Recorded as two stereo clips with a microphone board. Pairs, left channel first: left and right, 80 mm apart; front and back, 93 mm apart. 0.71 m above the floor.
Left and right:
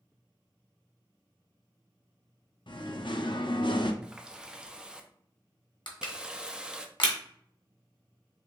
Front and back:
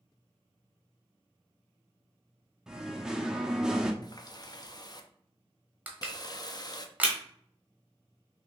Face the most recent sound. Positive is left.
turn(degrees=105)